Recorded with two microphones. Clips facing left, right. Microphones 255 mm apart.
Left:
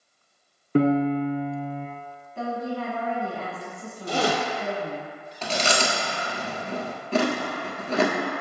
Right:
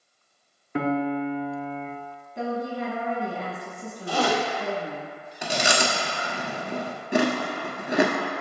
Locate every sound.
0.8 s a piano: 45° left (ahead or behind), 0.7 m
2.4 s a woman speaking: 20° right (ahead or behind), 1.2 m
4.1 s a zipper: 25° left (ahead or behind), 1.1 m
5.4 s chewing: 15° right (ahead or behind), 0.9 m